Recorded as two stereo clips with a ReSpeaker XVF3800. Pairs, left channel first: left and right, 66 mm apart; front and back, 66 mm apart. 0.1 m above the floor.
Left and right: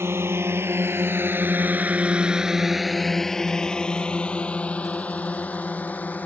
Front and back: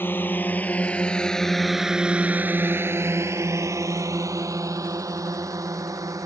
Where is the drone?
50° right; by 6.3 s 155° left.